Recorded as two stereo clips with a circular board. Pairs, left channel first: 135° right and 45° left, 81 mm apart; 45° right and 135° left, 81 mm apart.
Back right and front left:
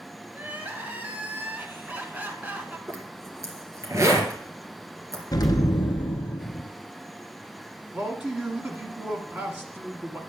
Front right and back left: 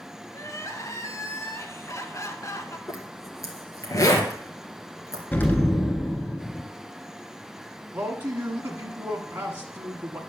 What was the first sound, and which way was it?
Crying, 15° right.